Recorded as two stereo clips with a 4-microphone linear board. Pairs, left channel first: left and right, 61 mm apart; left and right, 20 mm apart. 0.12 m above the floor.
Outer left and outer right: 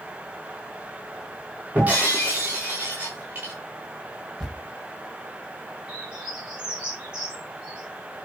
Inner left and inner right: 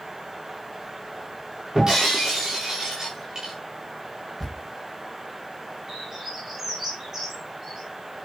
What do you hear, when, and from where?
1.8 s breaking glass: 30° right (ahead or behind), 5.5 m
4.4 s a thud: 5° right (ahead or behind), 6.5 m
5.9 s a bird: 15° right (ahead or behind), 8.5 m